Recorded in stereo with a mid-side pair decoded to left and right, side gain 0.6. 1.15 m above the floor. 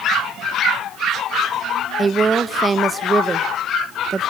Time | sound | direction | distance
2.0 | a woman speaking | 25° right | 0.8 m